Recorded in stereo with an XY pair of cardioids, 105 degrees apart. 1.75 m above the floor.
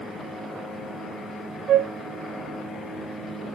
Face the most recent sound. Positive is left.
turn(degrees=-70)